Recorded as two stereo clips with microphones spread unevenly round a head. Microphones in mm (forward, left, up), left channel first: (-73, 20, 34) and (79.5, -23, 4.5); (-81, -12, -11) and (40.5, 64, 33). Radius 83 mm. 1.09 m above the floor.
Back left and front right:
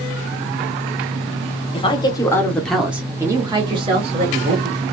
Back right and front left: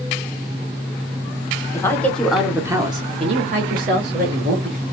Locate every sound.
1.7 s a woman speaking: 145° right, 0.8 m; by 4.8 s 10° left, 1.3 m